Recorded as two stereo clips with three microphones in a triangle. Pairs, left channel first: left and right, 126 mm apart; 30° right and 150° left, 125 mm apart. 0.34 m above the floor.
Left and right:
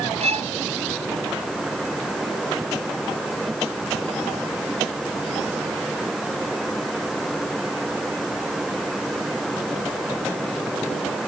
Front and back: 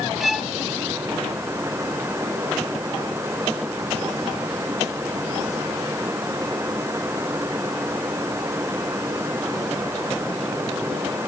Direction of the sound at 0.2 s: 120° right.